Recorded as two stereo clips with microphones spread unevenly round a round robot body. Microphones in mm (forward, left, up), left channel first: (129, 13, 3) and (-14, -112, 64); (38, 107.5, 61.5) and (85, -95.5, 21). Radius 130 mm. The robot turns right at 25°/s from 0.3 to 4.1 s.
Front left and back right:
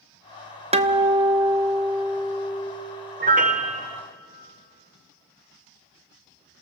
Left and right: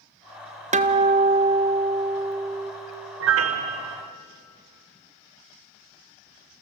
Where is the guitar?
70° right, 1.2 m; by 2.7 s 25° right, 1.2 m.